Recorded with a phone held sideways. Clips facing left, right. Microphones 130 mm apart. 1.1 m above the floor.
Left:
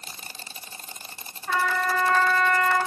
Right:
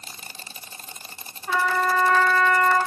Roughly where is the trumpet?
Centre.